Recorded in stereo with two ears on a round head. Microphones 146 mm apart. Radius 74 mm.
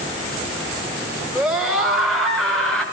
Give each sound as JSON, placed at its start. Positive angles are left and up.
{"t": 1.4, "sound": "a scream", "side_deg": -5, "distance_m": 8.0}